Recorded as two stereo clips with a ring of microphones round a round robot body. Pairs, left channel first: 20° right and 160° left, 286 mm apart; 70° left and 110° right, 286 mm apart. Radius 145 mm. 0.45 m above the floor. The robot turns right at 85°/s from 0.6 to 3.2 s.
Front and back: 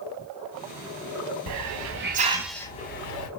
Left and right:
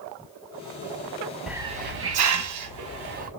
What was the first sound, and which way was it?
A hiss, 160° left.